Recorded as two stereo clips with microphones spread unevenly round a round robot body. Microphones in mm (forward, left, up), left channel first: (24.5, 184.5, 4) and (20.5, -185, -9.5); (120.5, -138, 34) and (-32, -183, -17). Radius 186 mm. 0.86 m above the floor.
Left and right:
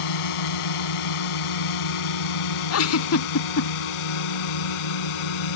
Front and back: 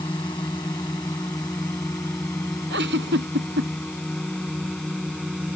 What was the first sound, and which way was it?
A drone, 95° left.